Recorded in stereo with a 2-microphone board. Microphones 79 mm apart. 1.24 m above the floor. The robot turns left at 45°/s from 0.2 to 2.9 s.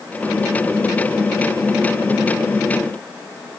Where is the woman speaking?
No woman speaking in this recording.